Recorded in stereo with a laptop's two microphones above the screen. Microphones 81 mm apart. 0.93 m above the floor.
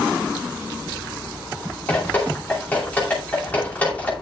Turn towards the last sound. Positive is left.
turn(degrees=20)  # may be behind; listen again after turning